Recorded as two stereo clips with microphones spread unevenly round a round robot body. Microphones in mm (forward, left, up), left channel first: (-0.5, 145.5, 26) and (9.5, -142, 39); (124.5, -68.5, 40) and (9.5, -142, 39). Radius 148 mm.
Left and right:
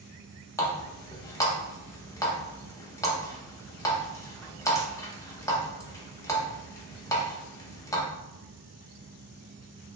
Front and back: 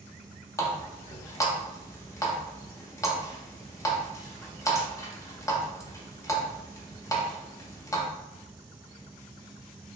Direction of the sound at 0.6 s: 40° left.